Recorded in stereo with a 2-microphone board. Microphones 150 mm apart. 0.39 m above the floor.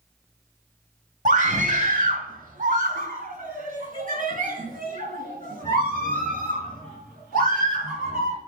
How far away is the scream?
About 1.6 m.